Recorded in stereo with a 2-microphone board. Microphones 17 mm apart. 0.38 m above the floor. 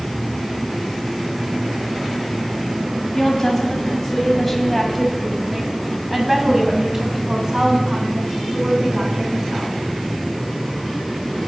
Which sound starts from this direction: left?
A woman speaking, at 3.1 s.